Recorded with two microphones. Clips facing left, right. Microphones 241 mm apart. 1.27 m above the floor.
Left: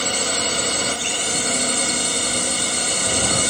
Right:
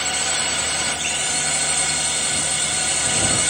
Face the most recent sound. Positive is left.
turn(degrees=50)  # may be behind; listen again after turning